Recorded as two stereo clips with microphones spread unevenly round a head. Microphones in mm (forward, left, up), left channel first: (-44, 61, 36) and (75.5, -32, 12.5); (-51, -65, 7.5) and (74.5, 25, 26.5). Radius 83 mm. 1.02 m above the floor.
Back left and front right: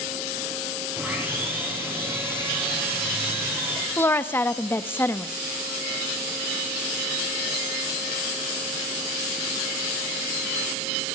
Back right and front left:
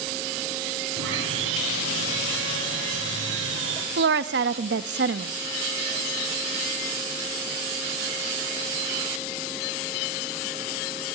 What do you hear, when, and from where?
1.0 s sawing: 40° left, 6.5 m
4.0 s a woman speaking: 65° left, 1.0 m